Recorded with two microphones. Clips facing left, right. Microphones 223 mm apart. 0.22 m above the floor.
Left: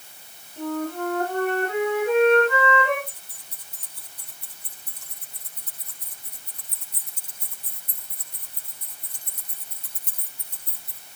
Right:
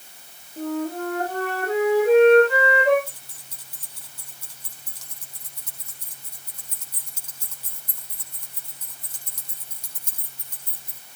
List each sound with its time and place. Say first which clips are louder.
0.6 s a flute: right 1 dB; 35° right (ahead or behind), 8 m
3.1 s keys jangling: even; 80° right, 6 m